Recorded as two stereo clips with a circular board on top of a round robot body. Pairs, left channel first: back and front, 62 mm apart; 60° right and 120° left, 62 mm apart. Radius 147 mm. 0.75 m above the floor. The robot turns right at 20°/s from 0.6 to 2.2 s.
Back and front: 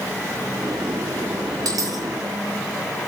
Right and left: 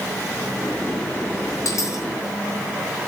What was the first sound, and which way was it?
A dropped coin, 20° right.